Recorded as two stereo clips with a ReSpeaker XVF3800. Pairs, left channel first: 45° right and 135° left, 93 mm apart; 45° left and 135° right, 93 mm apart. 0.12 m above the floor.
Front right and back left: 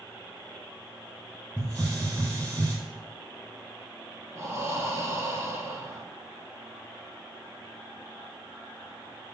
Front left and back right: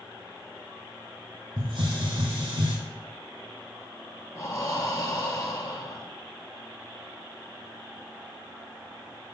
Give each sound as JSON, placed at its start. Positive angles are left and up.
{"t": 1.6, "sound": "a hiss", "azimuth_deg": -120, "distance_m": 4.0}
{"t": 4.3, "sound": "breathing", "azimuth_deg": 90, "distance_m": 1.4}